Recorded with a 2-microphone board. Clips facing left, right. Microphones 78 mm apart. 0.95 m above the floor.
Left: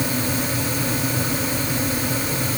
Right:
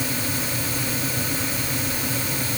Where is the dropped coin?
No dropped coin in this recording.